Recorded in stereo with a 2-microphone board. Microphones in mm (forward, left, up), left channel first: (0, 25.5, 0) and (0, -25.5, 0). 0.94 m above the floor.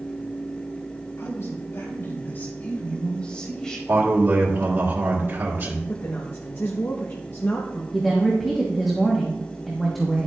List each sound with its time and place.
1.2 s a man speaking: 70° left (ahead or behind), 4.5 m; by 3.8 s 15° left (ahead or behind), 4.5 m
3.9 s a man speaking: 60° right (ahead or behind), 2.0 m
5.9 s a woman speaking: 45° left (ahead or behind), 1.2 m
7.9 s a woman speaking: centre (ahead or behind), 1.4 m